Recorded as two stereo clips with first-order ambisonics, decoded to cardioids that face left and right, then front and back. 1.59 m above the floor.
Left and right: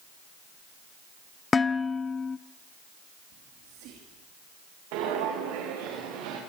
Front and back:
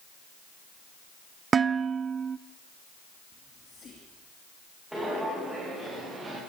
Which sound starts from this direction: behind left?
Dishes clattering, at 1.5 s.